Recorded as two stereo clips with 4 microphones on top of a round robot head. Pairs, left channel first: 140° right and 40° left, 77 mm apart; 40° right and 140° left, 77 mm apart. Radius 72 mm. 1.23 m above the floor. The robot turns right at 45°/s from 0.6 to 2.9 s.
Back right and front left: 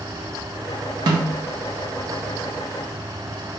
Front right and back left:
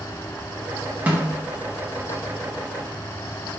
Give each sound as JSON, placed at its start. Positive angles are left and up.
{"t": 1.1, "sound": "a snare drum", "azimuth_deg": 70, "distance_m": 0.6}